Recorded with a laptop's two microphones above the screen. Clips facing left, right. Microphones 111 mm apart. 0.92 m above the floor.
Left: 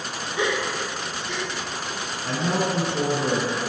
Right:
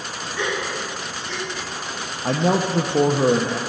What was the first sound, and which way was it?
A gasp, 15° left (ahead or behind).